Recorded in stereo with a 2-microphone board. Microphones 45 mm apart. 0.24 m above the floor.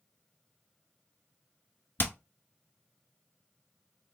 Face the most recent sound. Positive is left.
turn(degrees=50)  # may be behind; listen again after turning